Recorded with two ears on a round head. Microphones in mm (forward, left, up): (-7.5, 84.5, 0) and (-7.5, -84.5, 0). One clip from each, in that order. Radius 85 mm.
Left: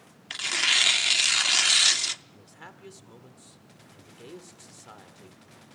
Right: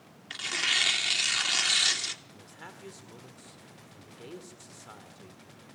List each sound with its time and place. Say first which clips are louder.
0.3 s tearing paper: left 4 dB; 20° left (ahead or behind), 0.8 m
2.3 s a man speaking: even; 5° left (ahead or behind), 1.7 m